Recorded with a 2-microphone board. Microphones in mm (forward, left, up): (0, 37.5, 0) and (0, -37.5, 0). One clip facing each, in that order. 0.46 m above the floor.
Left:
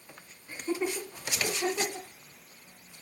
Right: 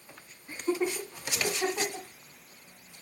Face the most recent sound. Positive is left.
turn(degrees=-55)  # may be behind; listen again after turning